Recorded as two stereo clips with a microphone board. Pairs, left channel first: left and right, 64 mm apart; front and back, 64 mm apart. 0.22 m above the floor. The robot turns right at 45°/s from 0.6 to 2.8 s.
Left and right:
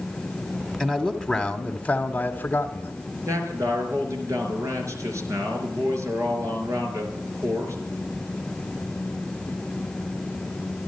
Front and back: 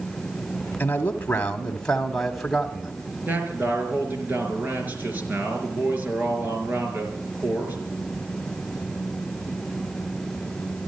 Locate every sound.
0.8 s a man speaking: 15° left, 1.1 m; by 2.9 s 105° left, 1.1 m
3.3 s a man speaking: 120° right, 4.5 m